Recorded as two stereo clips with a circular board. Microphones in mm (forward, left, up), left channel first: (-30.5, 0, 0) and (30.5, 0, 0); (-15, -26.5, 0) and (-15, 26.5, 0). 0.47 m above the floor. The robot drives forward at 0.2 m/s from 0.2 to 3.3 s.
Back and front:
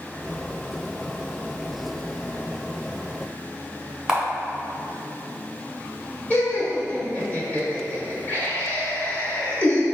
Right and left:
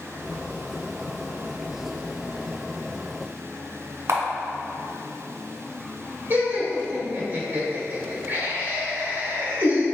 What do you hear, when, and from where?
4.1 s a camera shutter: 80° left, 1.1 m
6.3 s laughter: 120° left, 1.7 m